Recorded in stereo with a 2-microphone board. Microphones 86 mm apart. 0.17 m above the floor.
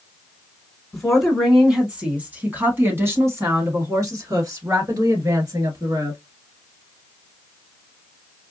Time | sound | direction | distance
0.9 | a woman speaking | 5° left (ahead or behind) | 1.5 m